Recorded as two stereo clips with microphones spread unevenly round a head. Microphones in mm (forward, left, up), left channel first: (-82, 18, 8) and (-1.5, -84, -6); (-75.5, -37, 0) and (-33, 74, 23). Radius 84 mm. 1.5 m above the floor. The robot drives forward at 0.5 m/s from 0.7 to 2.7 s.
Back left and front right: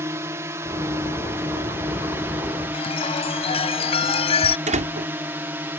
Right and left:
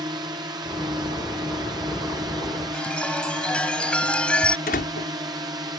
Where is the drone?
10° left.